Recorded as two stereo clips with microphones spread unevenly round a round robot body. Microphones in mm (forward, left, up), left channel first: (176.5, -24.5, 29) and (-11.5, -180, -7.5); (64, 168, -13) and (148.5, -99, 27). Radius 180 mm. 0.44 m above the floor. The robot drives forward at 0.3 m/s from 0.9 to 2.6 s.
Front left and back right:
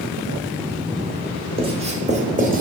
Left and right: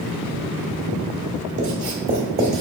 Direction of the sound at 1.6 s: 85° right.